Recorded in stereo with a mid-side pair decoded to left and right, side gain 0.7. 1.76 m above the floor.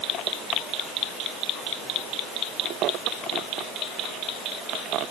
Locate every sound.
Only background noise.